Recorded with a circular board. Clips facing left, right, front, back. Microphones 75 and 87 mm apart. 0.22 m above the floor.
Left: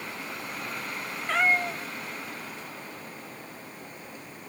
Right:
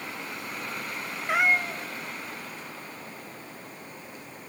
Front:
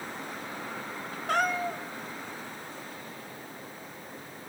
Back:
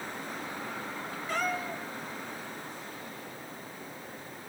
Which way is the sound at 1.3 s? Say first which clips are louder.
Right 1 dB, front 5 dB; 15° right.